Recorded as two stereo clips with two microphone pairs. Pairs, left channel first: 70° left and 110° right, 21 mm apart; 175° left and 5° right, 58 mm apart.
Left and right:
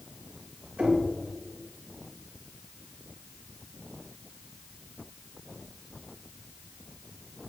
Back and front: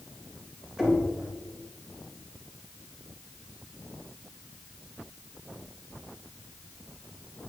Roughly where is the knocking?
Right.